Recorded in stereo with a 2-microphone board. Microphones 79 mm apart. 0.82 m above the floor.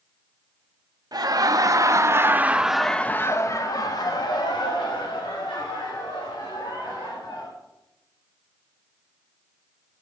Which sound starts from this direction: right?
Laughter, at 1.1 s.